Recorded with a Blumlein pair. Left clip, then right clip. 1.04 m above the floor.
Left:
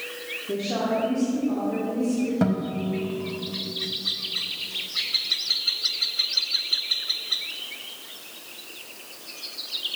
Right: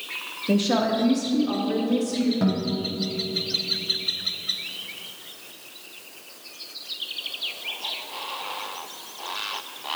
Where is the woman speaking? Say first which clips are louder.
Right 4 dB; 55° right, 0.9 m; by 2.3 s 45° right, 1.9 m.